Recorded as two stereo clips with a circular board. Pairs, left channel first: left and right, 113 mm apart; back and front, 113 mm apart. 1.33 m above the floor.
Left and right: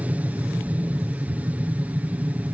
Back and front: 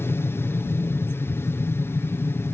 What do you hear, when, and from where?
0.0 s an aircraft: 145° right